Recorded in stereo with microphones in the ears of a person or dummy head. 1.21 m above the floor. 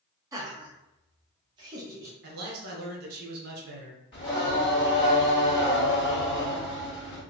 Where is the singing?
25° left (ahead or behind), 1.6 m.